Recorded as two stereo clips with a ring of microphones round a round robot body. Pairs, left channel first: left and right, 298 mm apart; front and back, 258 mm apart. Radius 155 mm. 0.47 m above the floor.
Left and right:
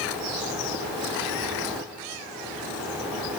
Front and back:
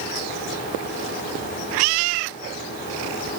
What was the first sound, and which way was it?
Only background noise.